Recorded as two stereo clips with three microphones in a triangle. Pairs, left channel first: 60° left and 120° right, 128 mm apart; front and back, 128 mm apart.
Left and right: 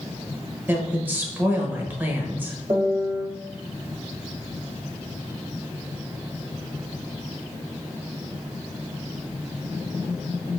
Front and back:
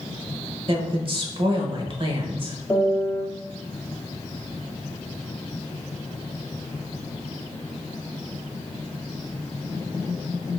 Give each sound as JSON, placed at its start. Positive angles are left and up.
{"t": 0.7, "sound": "a woman speaking", "azimuth_deg": 170, "distance_m": 1.0}
{"t": 2.7, "sound": "a piano", "azimuth_deg": -65, "distance_m": 1.1}